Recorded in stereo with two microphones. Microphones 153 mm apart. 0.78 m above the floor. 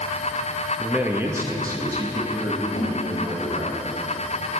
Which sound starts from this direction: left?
A snare drum, at 2.8 s.